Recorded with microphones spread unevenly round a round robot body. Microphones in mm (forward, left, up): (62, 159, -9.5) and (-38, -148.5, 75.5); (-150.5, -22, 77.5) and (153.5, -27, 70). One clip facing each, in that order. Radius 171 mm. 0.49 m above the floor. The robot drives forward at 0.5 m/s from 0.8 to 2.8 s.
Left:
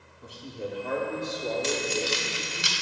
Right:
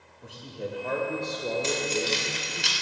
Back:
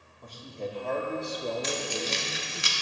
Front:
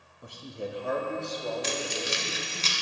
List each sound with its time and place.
0.2 s a man speaking: 50° left, 0.7 m; by 2.6 s 165° left, 1.0 m
1.6 s keys jangling: 35° left, 0.7 m; by 2.7 s 120° left, 0.6 m